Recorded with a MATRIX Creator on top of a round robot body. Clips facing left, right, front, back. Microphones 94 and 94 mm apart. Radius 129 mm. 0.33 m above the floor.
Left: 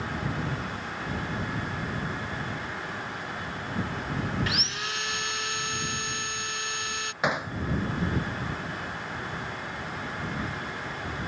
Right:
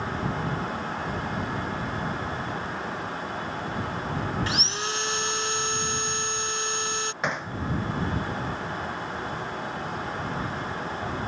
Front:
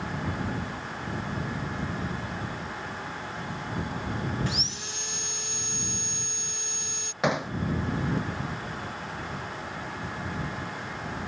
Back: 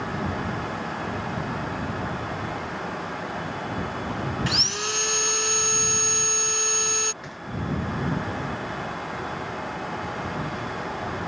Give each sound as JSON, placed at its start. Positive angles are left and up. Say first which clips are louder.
{"t": 4.5, "sound": "sawing", "louder": "right 3 dB, back 6 dB", "azimuth_deg": -150}
{"t": 7.2, "sound": "hammering", "louder": "left 3 dB, front 11 dB", "azimuth_deg": 10}